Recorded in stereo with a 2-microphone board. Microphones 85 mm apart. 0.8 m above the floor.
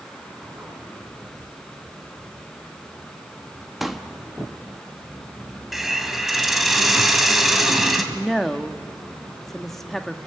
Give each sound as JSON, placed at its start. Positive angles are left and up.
{"t": 3.8, "sound": "a pop", "side_deg": 0, "distance_m": 1.1}
{"t": 5.7, "sound": "a hiss", "side_deg": 0, "distance_m": 1.9}
{"t": 8.1, "sound": "a woman speaking", "side_deg": 5, "distance_m": 1.0}